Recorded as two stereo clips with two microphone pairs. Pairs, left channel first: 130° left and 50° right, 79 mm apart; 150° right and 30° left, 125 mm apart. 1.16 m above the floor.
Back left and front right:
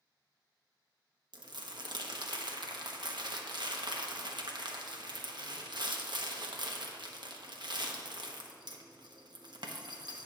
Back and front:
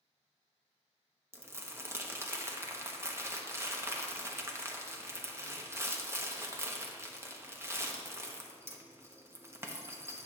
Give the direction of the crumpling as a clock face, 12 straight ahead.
1 o'clock.